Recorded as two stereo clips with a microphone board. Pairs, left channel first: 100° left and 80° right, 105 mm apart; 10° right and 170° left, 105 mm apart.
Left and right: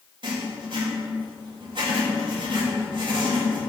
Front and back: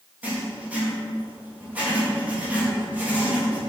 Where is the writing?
115° right, 3 m.